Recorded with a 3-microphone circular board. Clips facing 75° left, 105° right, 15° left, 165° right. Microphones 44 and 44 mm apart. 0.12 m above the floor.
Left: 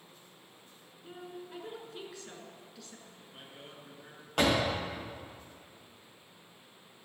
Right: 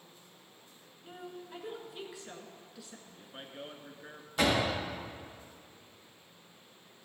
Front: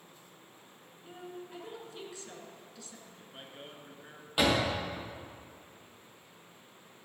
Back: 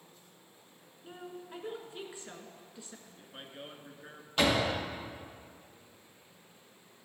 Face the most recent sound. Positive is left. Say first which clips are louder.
# left 1 dB, even
turn(degrees=90)